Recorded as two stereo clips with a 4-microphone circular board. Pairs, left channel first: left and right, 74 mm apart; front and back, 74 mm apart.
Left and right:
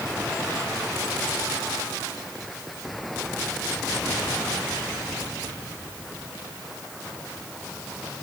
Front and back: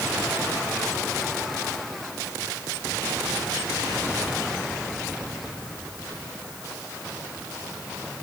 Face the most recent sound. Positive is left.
No sound to turn to.